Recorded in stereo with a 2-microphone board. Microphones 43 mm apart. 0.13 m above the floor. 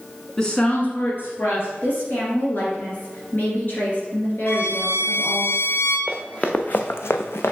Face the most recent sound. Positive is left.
turn(degrees=65)  # may be behind; listen again after turning